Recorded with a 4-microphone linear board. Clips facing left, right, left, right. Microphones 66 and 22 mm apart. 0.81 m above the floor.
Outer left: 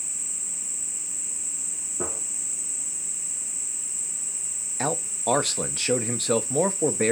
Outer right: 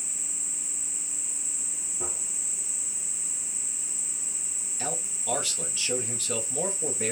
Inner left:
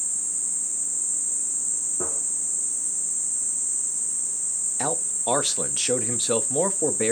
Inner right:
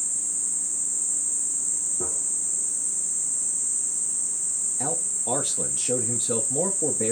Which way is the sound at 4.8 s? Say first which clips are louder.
Outer left 8 dB, inner left 5 dB; 50° left (ahead or behind).